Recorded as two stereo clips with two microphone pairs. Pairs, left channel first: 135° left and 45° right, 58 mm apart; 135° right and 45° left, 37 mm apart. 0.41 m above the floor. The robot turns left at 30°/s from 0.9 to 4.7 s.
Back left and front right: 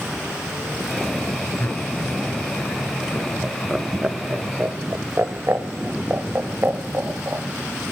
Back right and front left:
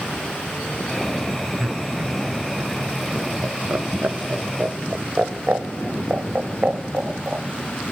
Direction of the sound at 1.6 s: 95° left.